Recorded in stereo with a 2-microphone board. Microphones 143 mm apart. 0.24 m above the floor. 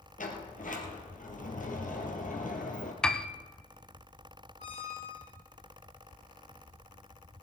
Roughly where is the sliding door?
Left.